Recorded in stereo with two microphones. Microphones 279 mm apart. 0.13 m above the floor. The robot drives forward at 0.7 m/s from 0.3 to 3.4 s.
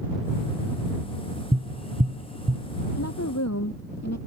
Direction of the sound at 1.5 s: 25° right (ahead or behind).